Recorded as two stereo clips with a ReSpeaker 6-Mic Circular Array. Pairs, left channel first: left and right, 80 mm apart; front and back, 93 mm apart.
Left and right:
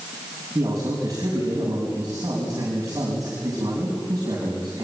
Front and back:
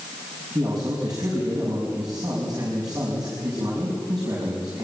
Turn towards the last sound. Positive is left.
turn(degrees=-135)